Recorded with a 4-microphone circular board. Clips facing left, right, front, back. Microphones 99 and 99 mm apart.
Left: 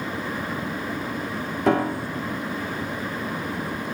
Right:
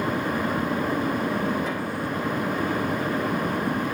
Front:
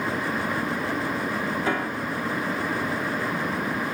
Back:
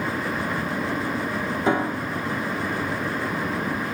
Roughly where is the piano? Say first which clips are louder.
Left 6 dB, back 3 dB; left.